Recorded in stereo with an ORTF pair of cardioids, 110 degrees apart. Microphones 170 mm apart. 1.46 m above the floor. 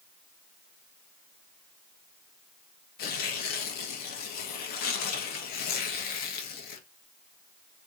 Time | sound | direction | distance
3.0 | tearing paper | 70° left | 1.3 m